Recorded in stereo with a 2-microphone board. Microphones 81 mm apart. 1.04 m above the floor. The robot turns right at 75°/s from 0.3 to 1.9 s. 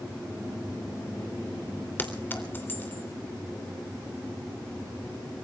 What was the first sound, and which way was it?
A clink, 25° left (ahead or behind).